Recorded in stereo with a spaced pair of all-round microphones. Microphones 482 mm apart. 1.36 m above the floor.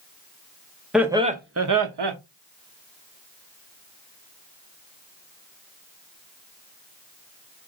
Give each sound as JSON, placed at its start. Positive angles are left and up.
{"t": 0.9, "sound": "laughter", "side_deg": 0, "distance_m": 0.9}